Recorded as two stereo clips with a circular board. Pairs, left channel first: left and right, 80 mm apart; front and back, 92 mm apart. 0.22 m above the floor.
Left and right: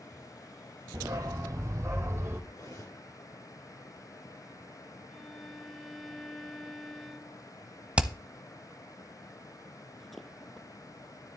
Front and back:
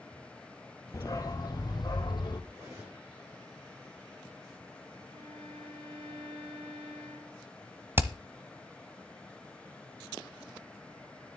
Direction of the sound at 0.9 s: 50° right.